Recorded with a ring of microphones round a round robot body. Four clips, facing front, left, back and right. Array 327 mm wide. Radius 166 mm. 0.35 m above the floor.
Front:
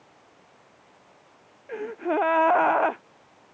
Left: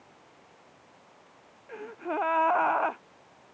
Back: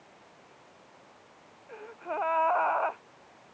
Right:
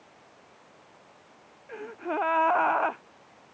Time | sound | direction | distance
1.7 | a gasp | straight ahead | ?